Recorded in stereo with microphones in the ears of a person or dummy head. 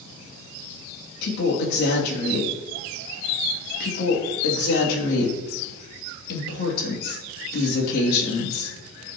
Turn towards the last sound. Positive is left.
turn(degrees=55)  # may be behind; listen again after turning